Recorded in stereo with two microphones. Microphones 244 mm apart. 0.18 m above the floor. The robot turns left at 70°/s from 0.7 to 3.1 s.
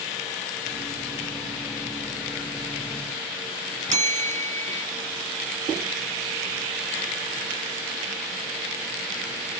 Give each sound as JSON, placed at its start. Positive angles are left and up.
{"t": 3.9, "sound": "a bell", "side_deg": -25, "distance_m": 0.8}